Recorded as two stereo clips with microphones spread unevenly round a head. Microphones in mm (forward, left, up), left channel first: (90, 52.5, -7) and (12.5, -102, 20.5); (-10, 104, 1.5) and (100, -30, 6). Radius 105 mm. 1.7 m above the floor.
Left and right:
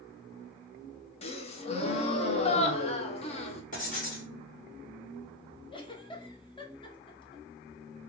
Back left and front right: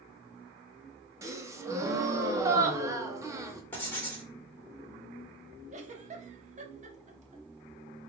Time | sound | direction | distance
1.2 | a gasp | 15° left | 0.7 m
3.7 | writing | 55° left | 1.6 m
5.7 | a giggle | straight ahead | 0.9 m